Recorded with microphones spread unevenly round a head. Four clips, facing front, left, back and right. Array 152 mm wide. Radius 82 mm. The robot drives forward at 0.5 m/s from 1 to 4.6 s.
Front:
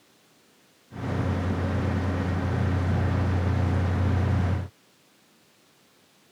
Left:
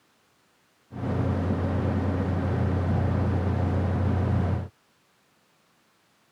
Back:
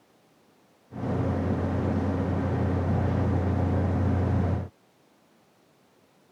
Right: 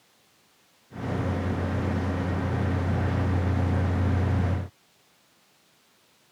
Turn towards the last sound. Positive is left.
No sound to turn to.